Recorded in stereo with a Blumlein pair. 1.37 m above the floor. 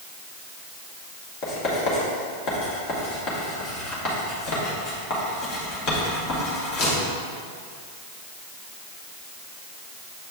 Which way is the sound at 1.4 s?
35° left.